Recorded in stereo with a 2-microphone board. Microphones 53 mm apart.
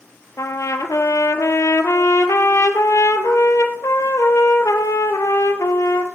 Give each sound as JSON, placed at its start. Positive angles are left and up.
{"t": 0.4, "sound": "a trumpet", "side_deg": 70, "distance_m": 1.1}